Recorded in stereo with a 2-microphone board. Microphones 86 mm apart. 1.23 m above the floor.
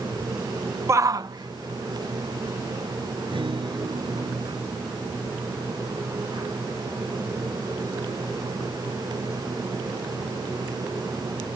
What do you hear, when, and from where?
0.9 s a shout: 30° right (ahead or behind); by 4.3 s 65° right (ahead or behind)
3.3 s a guitar: 80° right